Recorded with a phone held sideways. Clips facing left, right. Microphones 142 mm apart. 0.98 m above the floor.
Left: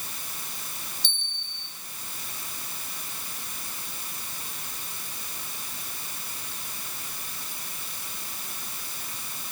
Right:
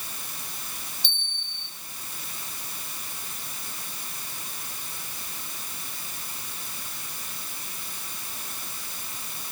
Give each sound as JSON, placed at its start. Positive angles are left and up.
{"t": 1.0, "sound": "a bell", "side_deg": 50, "distance_m": 3.0}